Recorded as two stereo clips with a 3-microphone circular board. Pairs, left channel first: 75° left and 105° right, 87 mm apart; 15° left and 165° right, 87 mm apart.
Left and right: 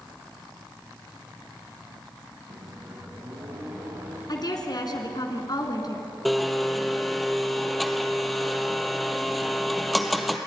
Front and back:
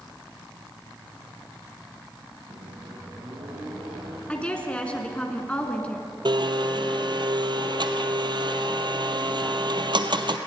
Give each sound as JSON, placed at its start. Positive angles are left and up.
{"t": 2.5, "sound": "a microwave", "azimuth_deg": -155, "distance_m": 5.0}
{"t": 4.3, "sound": "a woman speaking", "azimuth_deg": 90, "distance_m": 2.5}
{"t": 6.2, "sound": "a blender", "azimuth_deg": 165, "distance_m": 1.2}